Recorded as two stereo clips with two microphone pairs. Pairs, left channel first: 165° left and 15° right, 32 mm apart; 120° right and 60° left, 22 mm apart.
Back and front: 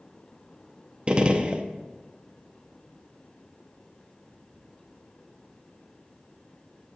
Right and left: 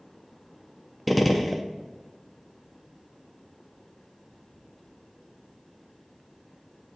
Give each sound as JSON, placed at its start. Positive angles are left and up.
{"t": 1.1, "sound": "a gunshot", "azimuth_deg": -25, "distance_m": 0.6}